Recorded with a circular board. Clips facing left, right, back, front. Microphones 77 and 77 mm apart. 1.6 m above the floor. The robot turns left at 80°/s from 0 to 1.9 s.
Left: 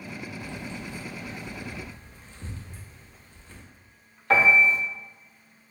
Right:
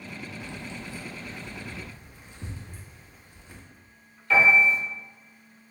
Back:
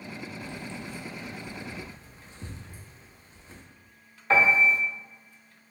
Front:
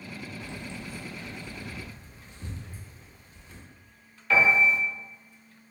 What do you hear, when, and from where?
0.4 s keys jangling: 35° right, 0.5 m; by 3.6 s 155° right, 0.5 m
2.7 s laughter: 110° right, 1.7 m
4.3 s a piano: 125° left, 0.7 m